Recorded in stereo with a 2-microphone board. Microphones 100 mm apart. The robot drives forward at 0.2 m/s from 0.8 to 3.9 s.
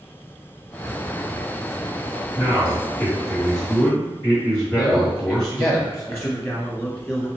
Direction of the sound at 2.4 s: 35° left (ahead or behind).